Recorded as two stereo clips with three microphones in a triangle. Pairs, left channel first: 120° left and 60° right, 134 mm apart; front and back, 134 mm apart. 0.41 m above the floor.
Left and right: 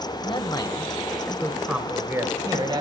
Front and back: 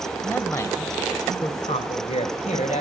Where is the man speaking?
75° left, 1.5 m; by 2.8 s 10° right, 1.6 m.